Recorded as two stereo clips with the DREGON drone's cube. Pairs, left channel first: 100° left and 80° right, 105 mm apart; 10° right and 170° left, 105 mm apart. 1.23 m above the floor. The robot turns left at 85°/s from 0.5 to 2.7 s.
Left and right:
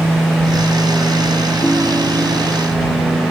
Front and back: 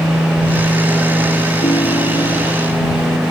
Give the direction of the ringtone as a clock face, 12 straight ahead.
12 o'clock.